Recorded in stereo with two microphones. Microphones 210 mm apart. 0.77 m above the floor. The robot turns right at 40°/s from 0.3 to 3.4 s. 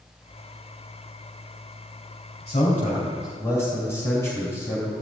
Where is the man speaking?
130° left, 3.5 m; by 4.9 s 165° left, 3.5 m.